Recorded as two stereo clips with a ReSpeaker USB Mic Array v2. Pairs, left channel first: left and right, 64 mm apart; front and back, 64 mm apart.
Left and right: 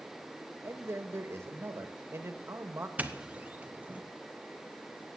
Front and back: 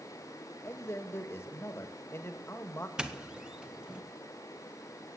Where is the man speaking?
45° right, 1.7 m.